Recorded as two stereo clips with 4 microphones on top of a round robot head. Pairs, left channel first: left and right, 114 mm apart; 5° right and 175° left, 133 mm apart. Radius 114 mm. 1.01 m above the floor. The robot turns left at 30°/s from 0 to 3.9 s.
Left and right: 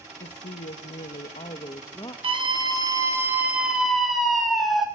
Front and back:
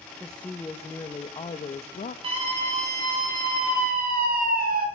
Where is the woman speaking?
85° left, 1.1 m; by 2.1 s 25° left, 1.1 m.